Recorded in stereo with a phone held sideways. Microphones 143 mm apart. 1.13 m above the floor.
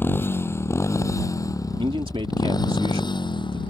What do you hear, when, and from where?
0.0 s a motorcycle: 15° left (ahead or behind); by 3.7 s 35° left (ahead or behind)
1.7 s a man speaking: 40° right (ahead or behind)